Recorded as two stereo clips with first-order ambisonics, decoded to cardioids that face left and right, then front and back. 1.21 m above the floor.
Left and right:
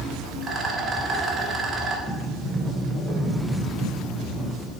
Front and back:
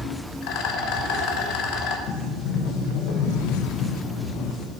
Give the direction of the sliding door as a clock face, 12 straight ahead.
12 o'clock.